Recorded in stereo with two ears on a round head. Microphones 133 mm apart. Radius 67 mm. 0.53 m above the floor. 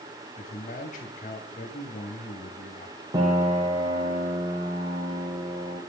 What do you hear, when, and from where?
0.4 s a man speaking: 55° left (ahead or behind), 4 m
3.1 s a piano: 25° right (ahead or behind), 5 m